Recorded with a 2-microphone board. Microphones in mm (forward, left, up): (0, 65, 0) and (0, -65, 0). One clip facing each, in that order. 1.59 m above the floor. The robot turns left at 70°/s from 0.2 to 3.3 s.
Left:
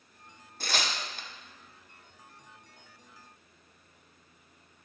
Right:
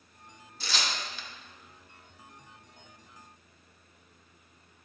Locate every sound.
0.6 s tearing paper: 50° left (ahead or behind), 0.7 m; by 1.3 s 45° left (ahead or behind), 0.7 m